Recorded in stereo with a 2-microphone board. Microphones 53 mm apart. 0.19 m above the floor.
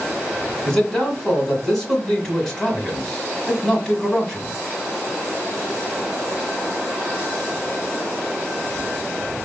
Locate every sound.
0.7 s a man speaking: 5° left (ahead or behind), 1.5 m